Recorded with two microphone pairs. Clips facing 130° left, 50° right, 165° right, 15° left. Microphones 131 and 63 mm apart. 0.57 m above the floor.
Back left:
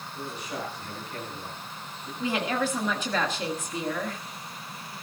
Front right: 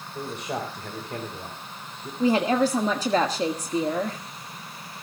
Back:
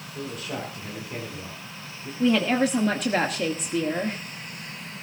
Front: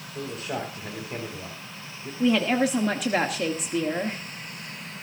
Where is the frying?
No frying in this recording.